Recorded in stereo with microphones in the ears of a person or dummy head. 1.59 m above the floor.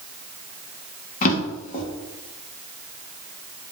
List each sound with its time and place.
1.2 s a drawer: 40° left (ahead or behind), 1.1 m